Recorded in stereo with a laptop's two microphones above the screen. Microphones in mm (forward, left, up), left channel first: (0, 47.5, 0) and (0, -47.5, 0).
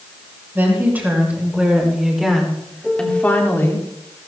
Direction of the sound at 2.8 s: 5° right (ahead or behind).